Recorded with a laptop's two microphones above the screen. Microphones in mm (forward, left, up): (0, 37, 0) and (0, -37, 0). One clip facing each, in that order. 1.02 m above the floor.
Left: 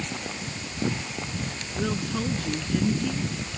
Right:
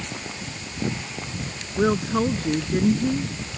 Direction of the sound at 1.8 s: 45° right (ahead or behind).